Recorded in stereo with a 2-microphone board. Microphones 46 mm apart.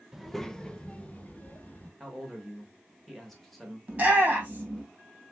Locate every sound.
0.1 s a child speaking: 5° right (ahead or behind), 0.5 m; by 1.9 s 40° left (ahead or behind), 1.4 m
2.0 s a man speaking: 5° left (ahead or behind), 1.2 m
3.9 s a shout: 30° right (ahead or behind), 2.5 m